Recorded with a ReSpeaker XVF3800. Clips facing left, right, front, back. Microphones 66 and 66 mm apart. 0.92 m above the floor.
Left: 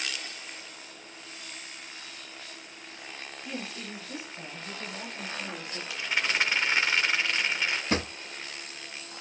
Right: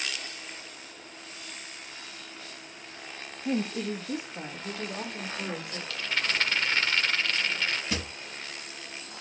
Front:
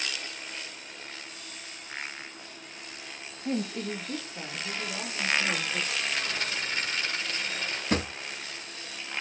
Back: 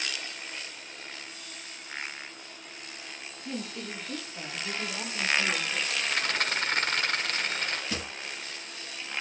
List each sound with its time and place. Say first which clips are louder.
3.5 s a woman speaking: right 10 dB, front 6 dB; 55° right, 1.1 m; by 5.8 s 105° right, 4 m
5.9 s a rattle: left 1 dB, back 2 dB; 165° left, 1.0 m
7.9 s a drawer: left 5 dB, front 7 dB; 40° left, 0.5 m